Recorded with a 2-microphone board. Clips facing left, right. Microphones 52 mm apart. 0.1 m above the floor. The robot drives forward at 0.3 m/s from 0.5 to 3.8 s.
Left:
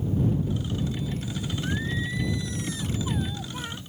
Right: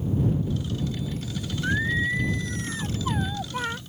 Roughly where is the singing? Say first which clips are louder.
Right 8 dB; right.